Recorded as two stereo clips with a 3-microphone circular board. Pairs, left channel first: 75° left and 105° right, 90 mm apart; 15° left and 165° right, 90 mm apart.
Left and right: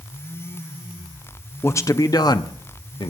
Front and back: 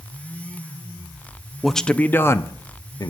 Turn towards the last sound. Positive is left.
turn(degrees=55)